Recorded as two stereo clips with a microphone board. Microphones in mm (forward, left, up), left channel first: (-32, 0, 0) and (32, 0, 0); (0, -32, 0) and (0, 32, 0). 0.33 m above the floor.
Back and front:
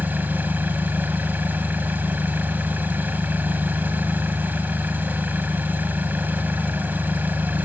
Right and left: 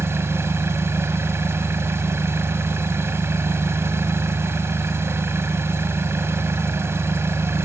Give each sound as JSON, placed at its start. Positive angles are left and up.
{"t": 0.0, "sound": "an engine running", "azimuth_deg": 55, "distance_m": 1.9}